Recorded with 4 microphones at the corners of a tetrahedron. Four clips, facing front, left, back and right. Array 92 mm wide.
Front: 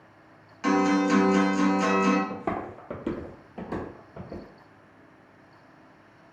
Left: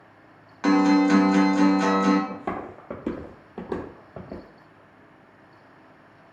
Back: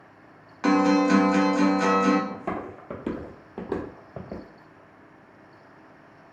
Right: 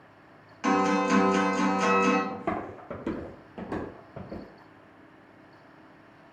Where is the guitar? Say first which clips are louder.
Left 6 dB, back 3 dB; 140° left, 0.6 m.